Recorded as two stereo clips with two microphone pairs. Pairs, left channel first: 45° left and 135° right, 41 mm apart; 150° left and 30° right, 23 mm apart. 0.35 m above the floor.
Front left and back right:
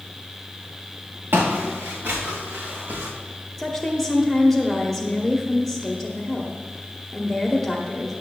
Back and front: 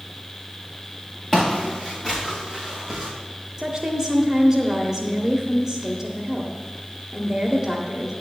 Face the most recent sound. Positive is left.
turn(degrees=-35)